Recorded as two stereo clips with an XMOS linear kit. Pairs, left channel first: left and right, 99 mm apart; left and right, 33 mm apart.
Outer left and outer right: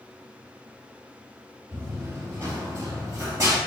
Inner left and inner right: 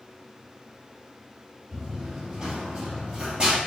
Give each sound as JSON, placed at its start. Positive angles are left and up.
{"t": 1.7, "sound": "running footsteps", "side_deg": -25, "distance_m": 1.9}